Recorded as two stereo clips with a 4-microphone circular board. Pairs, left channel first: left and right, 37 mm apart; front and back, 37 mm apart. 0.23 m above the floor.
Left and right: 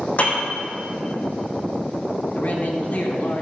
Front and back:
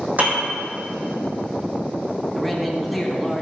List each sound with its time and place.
0.2 s a piano: 140° left, 3.5 m
2.3 s a man speaking: 90° left, 2.5 m